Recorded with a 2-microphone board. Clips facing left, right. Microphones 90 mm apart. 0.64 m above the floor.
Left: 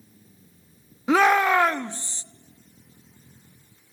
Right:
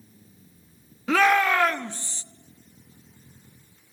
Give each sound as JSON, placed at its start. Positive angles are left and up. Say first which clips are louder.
{"t": 1.1, "sound": "a shout", "louder": "left 2 dB", "side_deg": 20, "distance_m": 0.8}